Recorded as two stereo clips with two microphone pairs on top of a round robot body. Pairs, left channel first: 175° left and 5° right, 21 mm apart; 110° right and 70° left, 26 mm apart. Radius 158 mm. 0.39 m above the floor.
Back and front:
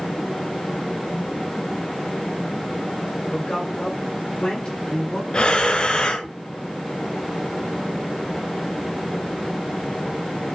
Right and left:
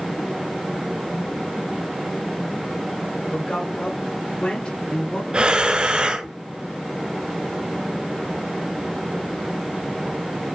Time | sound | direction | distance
3.3 | a man speaking | 145° right | 3.5 m
5.3 | breathing | 130° left | 0.6 m